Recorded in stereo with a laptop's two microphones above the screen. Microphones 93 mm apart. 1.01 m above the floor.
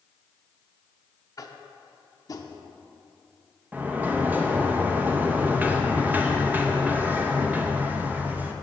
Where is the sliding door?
20° right (ahead or behind), 0.8 m.